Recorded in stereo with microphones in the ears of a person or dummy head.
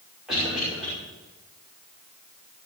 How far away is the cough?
About 6 m.